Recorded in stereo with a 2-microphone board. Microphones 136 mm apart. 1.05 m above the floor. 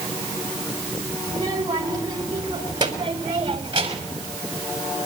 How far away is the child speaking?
About 4.5 m.